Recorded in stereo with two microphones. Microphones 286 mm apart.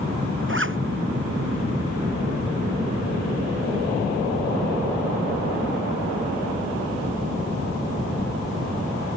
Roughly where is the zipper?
Right.